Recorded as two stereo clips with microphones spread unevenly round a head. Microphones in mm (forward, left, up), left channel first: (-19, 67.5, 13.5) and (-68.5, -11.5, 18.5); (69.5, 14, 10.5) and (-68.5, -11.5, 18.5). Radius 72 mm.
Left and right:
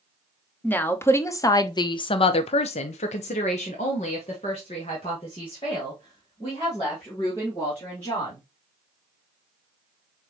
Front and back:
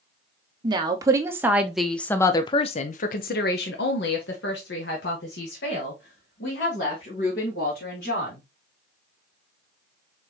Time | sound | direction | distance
0.6 | a woman speaking | 130° left | 1.1 m